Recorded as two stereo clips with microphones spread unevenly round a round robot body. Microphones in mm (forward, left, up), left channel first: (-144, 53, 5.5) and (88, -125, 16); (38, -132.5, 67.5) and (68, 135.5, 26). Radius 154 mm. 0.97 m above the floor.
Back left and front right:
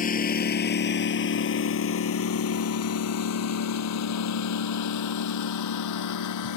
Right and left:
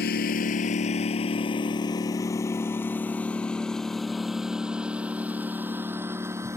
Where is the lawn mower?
155° right; by 6.6 s 165° left.